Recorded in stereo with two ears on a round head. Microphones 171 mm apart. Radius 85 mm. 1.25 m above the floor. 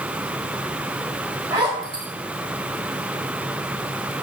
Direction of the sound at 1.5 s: 25° right (ahead or behind).